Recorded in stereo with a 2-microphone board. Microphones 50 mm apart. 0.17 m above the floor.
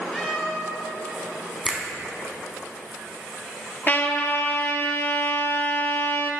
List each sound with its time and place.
0.1 s a cat meowing: 5° left (ahead or behind), 1.9 m
1.6 s a finger snap: 5° right (ahead or behind), 0.8 m
3.9 s a trumpet: 35° left (ahead or behind), 0.5 m